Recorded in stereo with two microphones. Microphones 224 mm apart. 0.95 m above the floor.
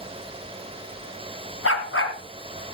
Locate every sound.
1.6 s a dog barking: 70° left (ahead or behind), 2 m